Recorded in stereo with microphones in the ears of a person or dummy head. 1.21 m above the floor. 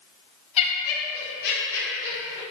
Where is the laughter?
35° left (ahead or behind), 0.6 m; by 2.4 s 75° left (ahead or behind), 1.3 m.